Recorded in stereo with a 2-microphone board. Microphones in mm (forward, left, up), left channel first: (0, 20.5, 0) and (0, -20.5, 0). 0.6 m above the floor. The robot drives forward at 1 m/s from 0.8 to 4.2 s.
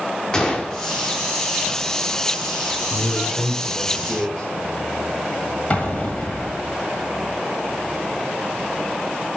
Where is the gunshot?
20° left (ahead or behind), 1.3 m.